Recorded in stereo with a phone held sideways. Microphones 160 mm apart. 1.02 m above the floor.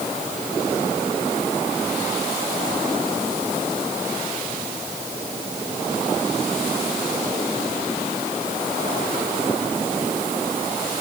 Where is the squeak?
I don't hear a squeak.